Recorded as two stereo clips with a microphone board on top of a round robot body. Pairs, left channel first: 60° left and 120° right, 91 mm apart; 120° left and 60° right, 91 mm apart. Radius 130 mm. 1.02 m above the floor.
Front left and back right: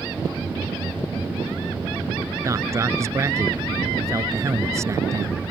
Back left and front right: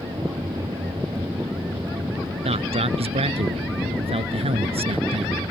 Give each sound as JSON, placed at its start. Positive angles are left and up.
{"t": 2.5, "sound": "a man speaking", "azimuth_deg": -60}